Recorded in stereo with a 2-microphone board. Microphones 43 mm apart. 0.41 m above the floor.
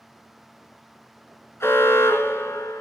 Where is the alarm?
70° left (ahead or behind), 3 m.